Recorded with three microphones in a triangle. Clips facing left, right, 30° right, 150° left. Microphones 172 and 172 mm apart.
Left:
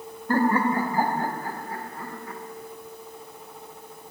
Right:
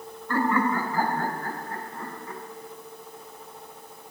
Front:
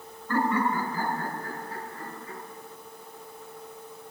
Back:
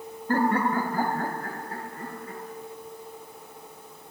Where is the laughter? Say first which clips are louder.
Left 2 dB, back 2 dB; 120° left, 1.6 m; by 2.4 s straight behind, 3.5 m.